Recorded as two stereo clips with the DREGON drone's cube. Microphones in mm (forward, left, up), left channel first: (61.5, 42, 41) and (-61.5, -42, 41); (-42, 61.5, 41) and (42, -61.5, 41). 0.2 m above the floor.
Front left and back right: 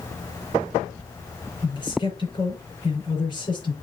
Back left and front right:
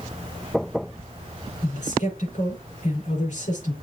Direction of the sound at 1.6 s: 90° left.